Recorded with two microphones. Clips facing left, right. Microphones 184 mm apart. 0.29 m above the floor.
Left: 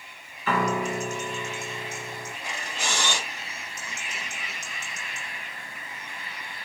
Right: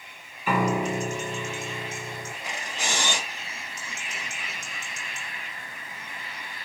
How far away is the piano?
About 0.6 m.